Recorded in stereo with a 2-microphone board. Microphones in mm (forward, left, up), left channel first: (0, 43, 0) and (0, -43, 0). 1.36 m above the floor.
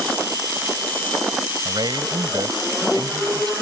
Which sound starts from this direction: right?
A man speaking, at 1.6 s.